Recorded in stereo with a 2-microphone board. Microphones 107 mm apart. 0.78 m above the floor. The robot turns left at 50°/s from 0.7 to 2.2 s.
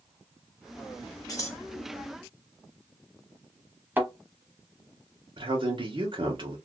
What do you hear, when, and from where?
1.3 s scissors: 35° left (ahead or behind), 1.1 m; by 1.6 s 25° left (ahead or behind), 1.1 m
4.0 s a thud: 20° right (ahead or behind), 0.9 m
5.4 s a man speaking: 50° right (ahead or behind), 1.2 m